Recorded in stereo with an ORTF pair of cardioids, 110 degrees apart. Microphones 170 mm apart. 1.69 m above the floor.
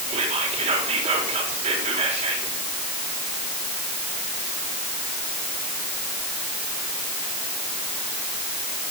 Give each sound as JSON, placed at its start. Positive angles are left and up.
{"t": 0.1, "sound": "whispering", "azimuth_deg": -40, "distance_m": 5.0}